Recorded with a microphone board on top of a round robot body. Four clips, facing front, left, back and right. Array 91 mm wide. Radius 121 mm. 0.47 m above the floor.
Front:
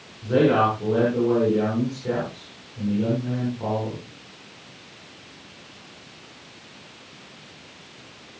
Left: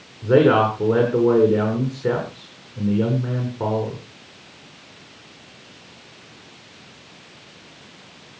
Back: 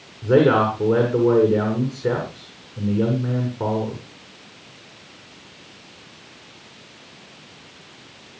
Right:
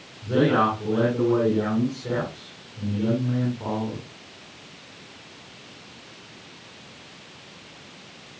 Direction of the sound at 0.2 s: 130° left.